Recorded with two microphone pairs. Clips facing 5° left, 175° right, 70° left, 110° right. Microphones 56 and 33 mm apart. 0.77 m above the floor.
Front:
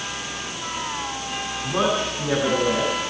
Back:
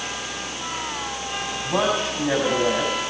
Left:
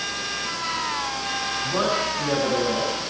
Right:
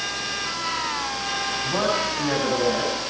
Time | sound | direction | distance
1.6 | a man speaking | 175° right | 7 m